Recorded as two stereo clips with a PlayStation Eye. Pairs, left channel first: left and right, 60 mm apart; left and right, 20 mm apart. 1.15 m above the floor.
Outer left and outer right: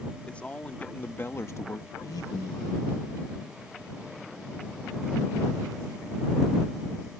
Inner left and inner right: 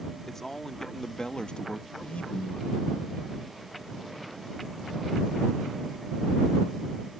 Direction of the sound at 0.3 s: 20° left (ahead or behind).